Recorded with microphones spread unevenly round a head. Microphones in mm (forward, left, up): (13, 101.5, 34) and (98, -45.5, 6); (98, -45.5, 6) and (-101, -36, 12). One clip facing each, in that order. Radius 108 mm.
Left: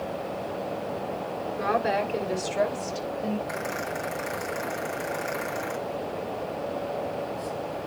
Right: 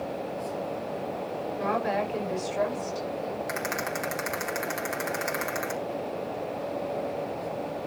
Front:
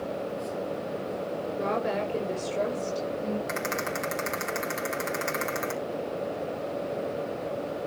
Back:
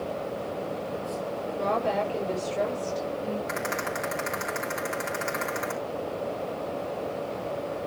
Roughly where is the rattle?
Ahead right.